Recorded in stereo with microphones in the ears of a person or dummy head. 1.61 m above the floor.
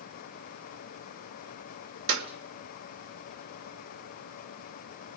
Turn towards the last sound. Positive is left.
turn(degrees=-60)  # may be behind; listen again after turning